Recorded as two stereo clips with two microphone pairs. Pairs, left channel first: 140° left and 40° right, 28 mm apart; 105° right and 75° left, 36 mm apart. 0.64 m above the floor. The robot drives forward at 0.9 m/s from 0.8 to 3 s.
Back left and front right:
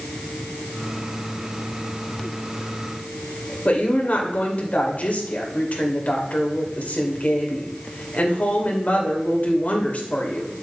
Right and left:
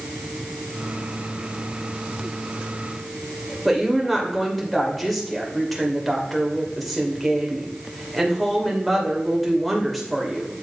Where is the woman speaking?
165° left, 2 m.